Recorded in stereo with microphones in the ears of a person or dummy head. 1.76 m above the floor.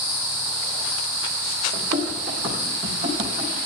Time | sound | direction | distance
1.7 | running footsteps | 45° right (ahead or behind) | 3 m